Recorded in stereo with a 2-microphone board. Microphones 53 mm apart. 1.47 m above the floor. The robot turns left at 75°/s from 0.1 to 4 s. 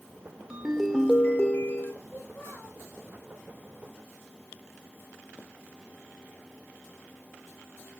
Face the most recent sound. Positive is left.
turn(degrees=-70)